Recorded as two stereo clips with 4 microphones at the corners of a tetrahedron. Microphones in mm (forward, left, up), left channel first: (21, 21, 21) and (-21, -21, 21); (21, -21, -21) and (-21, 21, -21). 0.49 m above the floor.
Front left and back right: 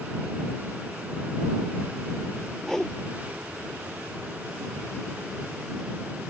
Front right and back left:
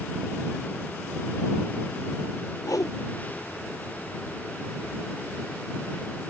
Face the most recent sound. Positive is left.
turn(degrees=-40)